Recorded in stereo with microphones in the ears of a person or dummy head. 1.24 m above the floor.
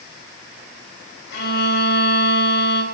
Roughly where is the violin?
Left.